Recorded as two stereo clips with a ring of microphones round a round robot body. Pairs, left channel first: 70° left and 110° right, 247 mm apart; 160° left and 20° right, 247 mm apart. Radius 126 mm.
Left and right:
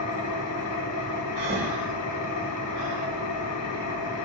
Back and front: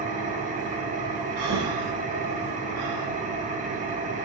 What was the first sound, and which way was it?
An engine running, 40° left.